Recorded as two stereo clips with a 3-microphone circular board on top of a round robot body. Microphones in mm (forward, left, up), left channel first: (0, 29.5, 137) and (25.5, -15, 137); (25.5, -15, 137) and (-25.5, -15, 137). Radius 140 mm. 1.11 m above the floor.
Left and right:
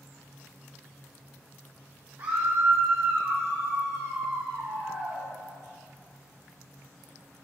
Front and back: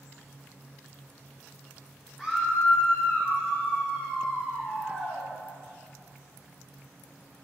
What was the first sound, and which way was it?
A scream, 85° right.